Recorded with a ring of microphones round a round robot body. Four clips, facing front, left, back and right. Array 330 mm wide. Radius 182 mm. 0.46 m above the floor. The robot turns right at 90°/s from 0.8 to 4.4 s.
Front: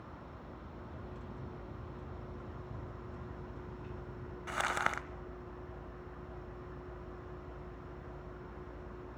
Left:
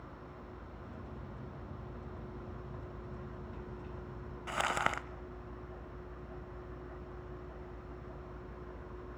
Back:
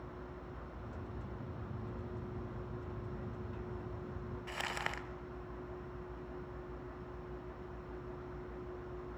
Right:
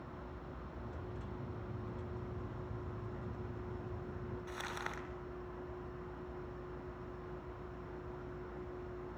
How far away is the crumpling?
About 0.8 m.